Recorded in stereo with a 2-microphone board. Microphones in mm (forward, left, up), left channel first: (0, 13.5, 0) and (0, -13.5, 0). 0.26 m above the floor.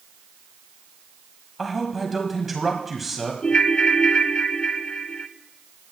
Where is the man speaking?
5° right (ahead or behind), 1.6 m.